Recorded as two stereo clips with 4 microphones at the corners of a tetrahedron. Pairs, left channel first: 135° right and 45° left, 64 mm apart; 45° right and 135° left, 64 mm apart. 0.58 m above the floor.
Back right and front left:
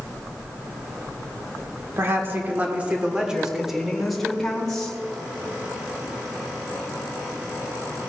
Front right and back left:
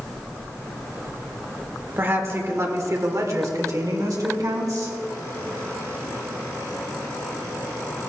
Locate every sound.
2.0 s a woman speaking: 85° left, 1.5 m; by 5.0 s 150° left, 2 m